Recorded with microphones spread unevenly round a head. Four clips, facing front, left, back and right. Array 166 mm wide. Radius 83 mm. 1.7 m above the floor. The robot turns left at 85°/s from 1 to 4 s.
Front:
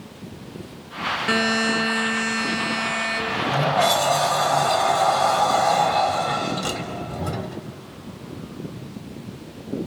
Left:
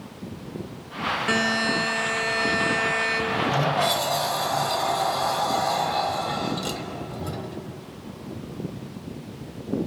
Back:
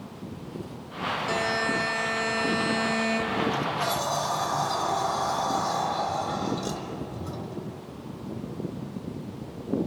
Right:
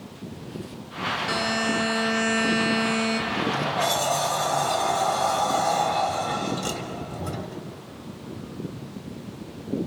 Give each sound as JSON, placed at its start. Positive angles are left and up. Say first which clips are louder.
{"t": 1.3, "sound": "a buzzer", "louder": "left 2 dB, front 6 dB", "azimuth_deg": 35, "distance_m": 2.0}
{"t": 3.3, "sound": "a sliding door", "louder": "left 2 dB, front 5 dB", "azimuth_deg": 55, "distance_m": 1.1}